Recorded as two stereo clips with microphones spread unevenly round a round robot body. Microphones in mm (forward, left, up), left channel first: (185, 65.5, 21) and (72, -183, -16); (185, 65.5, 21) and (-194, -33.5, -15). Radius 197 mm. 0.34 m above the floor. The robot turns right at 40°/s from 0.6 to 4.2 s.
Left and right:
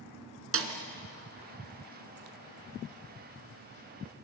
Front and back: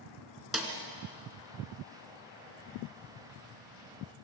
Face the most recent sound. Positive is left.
turn(degrees=70)